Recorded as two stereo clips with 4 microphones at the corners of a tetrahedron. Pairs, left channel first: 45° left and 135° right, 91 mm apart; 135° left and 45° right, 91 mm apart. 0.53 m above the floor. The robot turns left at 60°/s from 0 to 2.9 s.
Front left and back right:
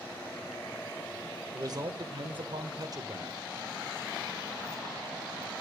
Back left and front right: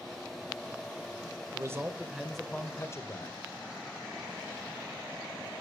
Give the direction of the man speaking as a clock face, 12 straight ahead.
3 o'clock.